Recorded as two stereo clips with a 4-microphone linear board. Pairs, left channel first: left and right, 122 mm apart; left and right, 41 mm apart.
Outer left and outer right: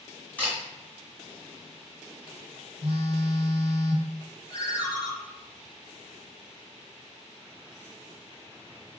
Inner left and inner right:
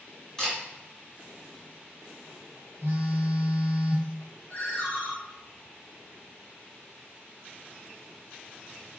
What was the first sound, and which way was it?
A camera shutter, 10° left (ahead or behind).